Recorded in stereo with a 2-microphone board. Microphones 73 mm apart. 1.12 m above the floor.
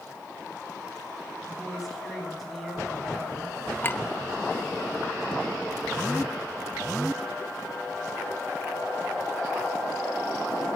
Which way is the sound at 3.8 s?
30° left (ahead or behind).